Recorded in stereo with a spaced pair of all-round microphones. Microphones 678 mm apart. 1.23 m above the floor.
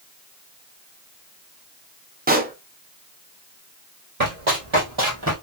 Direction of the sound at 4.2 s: 55° right (ahead or behind).